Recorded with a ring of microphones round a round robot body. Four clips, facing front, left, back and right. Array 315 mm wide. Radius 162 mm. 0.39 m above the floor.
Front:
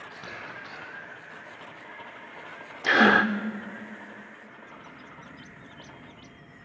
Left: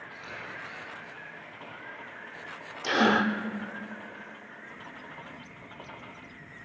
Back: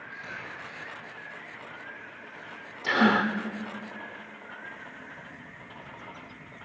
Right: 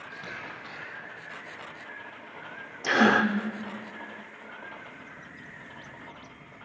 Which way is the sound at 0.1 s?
25° right.